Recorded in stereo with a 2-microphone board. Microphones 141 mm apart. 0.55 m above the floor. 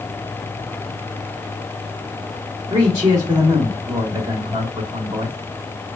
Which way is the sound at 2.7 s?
25° right (ahead or behind).